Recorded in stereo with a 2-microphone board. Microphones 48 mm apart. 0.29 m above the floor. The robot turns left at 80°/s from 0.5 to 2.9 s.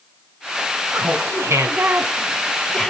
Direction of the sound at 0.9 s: 45° right.